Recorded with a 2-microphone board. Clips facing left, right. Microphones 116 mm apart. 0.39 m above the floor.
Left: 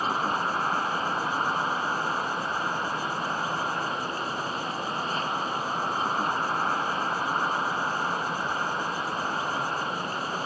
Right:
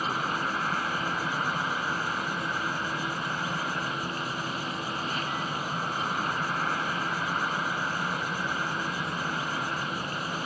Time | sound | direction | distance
0.0 | an insect | 30° left (ahead or behind) | ?